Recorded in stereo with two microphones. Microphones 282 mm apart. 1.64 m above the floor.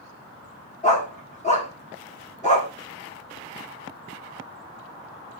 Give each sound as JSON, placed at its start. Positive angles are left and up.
{"t": 0.8, "sound": "a dog barking", "side_deg": 25, "distance_m": 1.4}